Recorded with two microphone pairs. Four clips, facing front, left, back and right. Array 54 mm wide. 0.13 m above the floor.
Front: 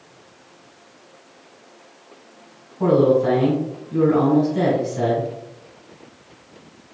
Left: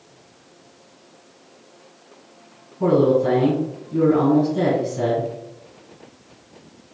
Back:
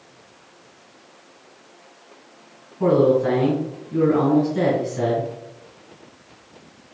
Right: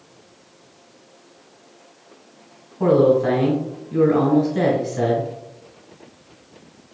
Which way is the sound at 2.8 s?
100° right.